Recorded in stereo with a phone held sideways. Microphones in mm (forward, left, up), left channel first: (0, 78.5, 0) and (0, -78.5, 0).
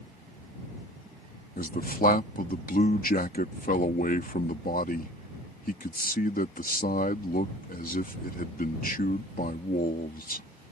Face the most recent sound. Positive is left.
turn(degrees=65)  # may be behind; listen again after turning